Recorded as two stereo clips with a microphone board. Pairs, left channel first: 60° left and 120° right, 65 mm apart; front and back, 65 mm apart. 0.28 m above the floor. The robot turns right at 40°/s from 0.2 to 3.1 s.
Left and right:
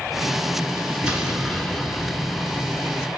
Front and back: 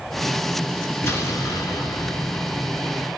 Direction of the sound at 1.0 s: 45° right.